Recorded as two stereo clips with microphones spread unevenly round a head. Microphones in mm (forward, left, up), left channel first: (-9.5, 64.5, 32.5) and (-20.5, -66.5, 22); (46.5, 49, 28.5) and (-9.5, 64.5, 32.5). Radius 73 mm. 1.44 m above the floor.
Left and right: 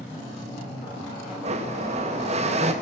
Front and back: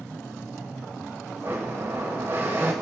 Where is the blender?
130° right, 1.3 m.